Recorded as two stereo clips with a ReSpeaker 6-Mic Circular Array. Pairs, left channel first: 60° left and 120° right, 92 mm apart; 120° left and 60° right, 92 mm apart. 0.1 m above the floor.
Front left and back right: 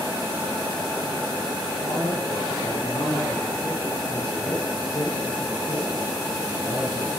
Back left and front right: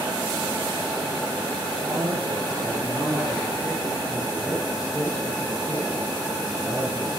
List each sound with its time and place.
1.8 s a man speaking: 35° right, 4.5 m; by 7.2 s 15° left, 3.5 m